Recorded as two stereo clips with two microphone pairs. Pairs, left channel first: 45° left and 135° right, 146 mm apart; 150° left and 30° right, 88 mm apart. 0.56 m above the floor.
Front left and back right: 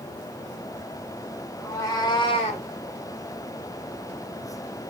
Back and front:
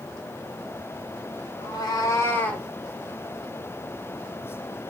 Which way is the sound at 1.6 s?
115° left.